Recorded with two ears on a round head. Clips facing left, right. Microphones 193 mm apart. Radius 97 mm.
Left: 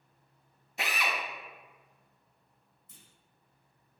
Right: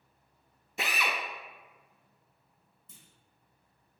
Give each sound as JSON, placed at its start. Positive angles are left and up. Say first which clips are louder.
{"t": 0.8, "sound": "a drill", "louder": "right 1 dB", "side_deg": -70, "distance_m": 0.5}
{"t": 2.9, "sound": "a clunk", "louder": "right 1 dB", "side_deg": -55, "distance_m": 0.7}